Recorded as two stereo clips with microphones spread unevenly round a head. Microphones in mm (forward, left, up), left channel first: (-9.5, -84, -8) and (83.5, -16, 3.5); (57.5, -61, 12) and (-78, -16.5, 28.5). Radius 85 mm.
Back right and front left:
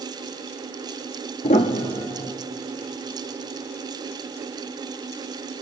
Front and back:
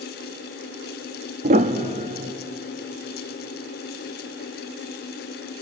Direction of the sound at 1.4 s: 175° left.